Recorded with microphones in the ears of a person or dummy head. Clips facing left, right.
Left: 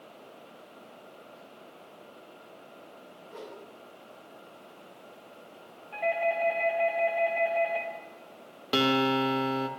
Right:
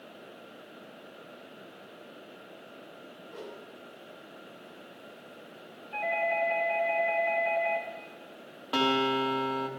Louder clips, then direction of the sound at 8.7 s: Left 2 dB; 30° left (ahead or behind).